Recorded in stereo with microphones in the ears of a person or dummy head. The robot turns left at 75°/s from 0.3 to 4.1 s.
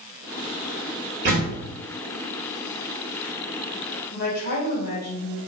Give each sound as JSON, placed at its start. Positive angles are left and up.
{"t": 1.2, "sound": "a door slam", "side_deg": -55, "distance_m": 2.0}
{"t": 4.1, "sound": "a woman speaking", "side_deg": 65, "distance_m": 3.0}